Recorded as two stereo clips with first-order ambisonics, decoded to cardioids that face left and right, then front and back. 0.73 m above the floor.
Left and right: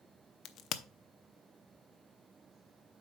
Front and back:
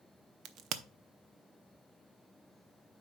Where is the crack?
135° left, 0.6 m.